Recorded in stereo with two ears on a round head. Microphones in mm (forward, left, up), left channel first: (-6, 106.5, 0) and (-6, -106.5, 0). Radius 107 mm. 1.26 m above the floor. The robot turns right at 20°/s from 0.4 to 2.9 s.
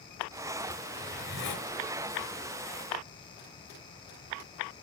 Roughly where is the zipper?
Left.